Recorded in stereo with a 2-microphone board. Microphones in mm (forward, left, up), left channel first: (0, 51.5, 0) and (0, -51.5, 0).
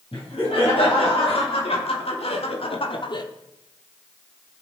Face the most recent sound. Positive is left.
turn(degrees=40)  # may be behind; listen again after turning